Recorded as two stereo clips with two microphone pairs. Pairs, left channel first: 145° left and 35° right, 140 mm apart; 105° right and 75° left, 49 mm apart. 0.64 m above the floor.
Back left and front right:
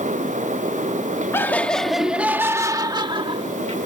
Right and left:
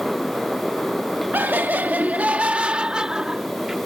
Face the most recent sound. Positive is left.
turn(degrees=-10)